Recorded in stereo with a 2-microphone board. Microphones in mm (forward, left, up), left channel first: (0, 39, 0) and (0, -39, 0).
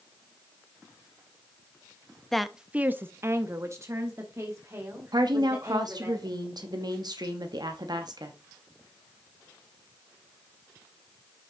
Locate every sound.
2.3 s a woman speaking: 5° left (ahead or behind), 0.5 m; by 6.1 s 35° right (ahead or behind), 2.5 m
5.1 s a woman speaking: 60° right (ahead or behind), 0.7 m